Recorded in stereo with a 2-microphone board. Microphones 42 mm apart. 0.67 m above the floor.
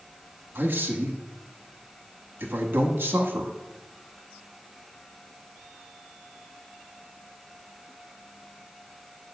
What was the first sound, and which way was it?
A man speaking, 55° right (ahead or behind).